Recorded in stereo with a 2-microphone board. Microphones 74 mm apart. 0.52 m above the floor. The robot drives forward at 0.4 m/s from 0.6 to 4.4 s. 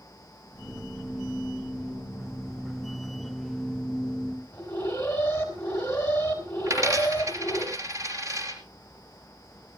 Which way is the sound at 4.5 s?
30° left (ahead or behind).